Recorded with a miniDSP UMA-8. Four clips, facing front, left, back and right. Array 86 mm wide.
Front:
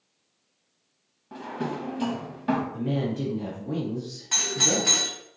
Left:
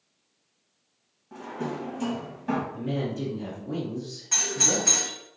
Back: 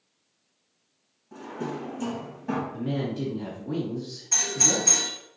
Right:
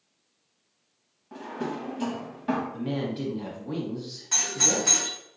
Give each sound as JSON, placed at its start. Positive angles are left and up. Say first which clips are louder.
{"t": 1.3, "sound": "a drawer", "louder": "even, front 2 dB", "azimuth_deg": -15, "distance_m": 0.7}
{"t": 2.7, "sound": "a woman speaking", "louder": "even, front 1 dB", "azimuth_deg": -90, "distance_m": 1.6}
{"t": 4.3, "sound": "a doorbell", "louder": "even, front 1 dB", "azimuth_deg": 0, "distance_m": 2.0}